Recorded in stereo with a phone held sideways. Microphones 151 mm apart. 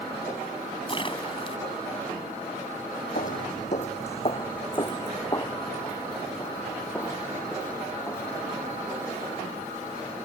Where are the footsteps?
60° left (ahead or behind); by 8.7 s 10° left (ahead or behind).